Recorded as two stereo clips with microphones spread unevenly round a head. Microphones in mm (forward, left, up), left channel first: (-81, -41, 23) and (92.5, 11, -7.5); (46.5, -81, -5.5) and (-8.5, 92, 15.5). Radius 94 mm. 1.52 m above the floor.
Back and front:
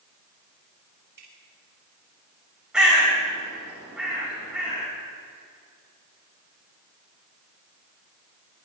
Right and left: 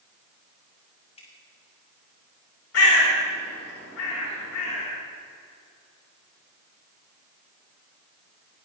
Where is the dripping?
15° right, 7 m.